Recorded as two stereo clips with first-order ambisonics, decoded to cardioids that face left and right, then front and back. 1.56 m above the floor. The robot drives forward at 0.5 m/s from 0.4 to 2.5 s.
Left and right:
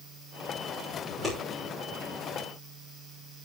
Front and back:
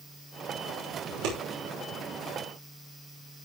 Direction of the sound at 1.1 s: 175° right.